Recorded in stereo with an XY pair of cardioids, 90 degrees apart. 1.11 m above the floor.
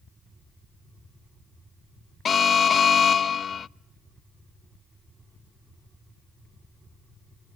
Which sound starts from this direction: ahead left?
An alarm, at 2.2 s.